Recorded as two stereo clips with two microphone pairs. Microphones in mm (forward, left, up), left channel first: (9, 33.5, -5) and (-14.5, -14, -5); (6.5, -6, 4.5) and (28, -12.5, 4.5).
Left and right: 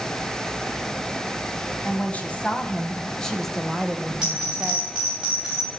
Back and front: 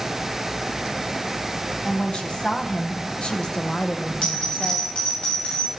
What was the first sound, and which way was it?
A woman speaking, 120° left.